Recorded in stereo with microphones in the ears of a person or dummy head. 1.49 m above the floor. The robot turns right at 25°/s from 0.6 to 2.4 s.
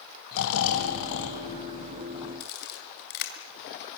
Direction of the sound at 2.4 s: 60° left (ahead or behind).